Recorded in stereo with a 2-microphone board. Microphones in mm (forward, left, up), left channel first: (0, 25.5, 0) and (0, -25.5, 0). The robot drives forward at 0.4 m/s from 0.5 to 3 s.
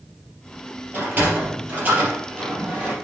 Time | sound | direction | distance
0.9 | a sliding door | 35° right (ahead or behind) | 3.5 m